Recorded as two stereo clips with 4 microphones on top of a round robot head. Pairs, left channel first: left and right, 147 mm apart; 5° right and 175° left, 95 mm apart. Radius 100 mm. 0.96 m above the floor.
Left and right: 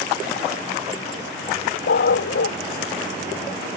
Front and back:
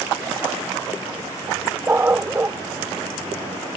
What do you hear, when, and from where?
1.9 s a dog barking: 105° left